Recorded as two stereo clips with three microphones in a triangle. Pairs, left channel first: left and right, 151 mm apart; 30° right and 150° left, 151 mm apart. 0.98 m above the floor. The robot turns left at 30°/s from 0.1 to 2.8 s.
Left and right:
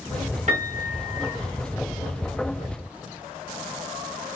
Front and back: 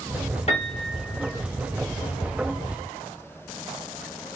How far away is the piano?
About 1.5 m.